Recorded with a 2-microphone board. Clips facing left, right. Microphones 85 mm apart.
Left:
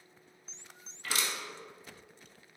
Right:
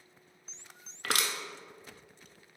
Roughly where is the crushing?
Right.